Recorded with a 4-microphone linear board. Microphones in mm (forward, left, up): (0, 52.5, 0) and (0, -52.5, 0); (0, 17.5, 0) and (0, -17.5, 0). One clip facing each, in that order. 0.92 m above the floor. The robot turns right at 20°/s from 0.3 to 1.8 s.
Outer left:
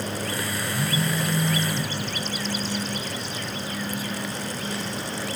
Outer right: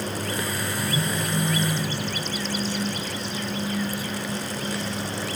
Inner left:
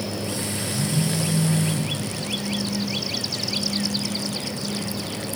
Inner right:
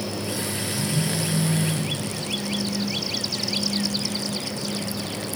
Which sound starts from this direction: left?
A phone buzzing, at 0.7 s.